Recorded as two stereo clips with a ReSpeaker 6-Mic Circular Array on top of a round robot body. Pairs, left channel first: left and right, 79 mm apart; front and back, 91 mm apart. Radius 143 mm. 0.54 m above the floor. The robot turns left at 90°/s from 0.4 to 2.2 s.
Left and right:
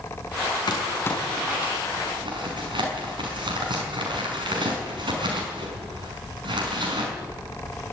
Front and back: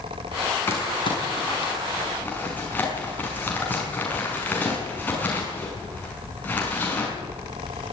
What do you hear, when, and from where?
0.7 s crumpling: 65° left, 5.5 m; by 7.1 s 70° right, 5.5 m